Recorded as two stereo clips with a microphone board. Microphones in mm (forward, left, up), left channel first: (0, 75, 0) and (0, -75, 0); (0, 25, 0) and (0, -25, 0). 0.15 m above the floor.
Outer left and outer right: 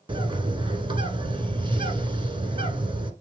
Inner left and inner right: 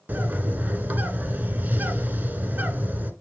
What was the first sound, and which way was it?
A bird, 35° right (ahead or behind).